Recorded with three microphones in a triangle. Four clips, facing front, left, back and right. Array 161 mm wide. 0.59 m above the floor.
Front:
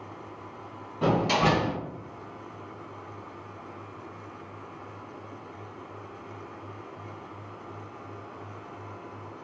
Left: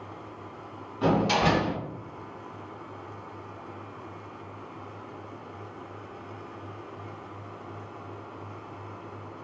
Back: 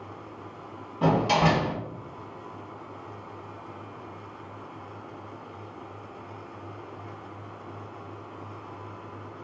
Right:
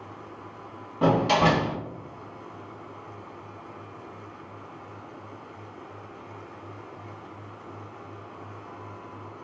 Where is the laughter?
I don't hear laughter.